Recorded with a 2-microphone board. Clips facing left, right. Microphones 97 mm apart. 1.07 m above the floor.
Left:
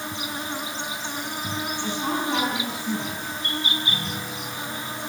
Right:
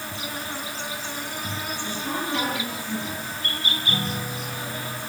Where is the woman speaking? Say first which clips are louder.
Left 4 dB; 75° left (ahead or behind), 9 m.